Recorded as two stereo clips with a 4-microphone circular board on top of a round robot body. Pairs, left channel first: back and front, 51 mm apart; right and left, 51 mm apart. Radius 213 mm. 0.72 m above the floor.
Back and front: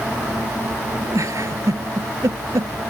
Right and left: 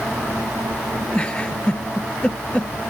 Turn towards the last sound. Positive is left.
turn(degrees=-20)